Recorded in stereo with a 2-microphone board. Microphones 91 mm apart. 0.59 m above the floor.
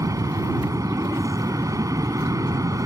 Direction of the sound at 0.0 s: 35° right (ahead or behind).